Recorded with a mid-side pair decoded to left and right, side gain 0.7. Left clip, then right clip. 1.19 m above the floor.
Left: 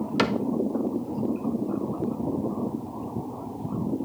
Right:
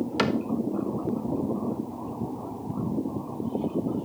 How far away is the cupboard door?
About 0.9 m.